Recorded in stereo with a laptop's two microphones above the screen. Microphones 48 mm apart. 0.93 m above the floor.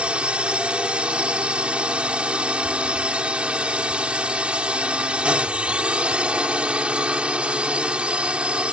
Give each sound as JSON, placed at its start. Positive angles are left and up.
{"t": 0.0, "sound": "a drone", "side_deg": -25}